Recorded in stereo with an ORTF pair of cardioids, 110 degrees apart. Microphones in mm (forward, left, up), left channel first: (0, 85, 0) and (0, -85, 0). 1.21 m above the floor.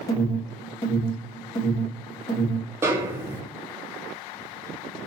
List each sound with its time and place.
0.1 s an alarm: 20° left, 1.7 m
2.8 s a snare drum: 15° right, 1.1 m